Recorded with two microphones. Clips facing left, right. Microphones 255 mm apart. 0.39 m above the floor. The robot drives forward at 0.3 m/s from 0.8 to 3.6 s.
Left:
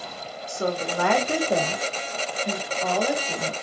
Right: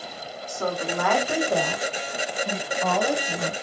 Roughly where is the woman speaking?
Left.